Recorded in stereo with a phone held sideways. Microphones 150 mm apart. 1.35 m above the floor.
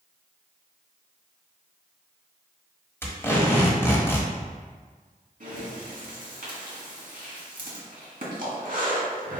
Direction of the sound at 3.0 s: 15° left (ahead or behind).